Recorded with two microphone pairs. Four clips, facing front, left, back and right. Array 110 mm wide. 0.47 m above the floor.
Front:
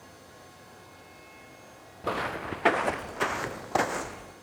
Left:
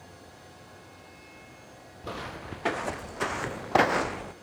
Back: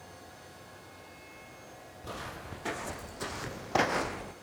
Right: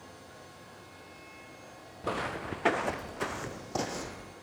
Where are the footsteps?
10° right, 2.5 m; by 4.3 s 95° left, 1.5 m.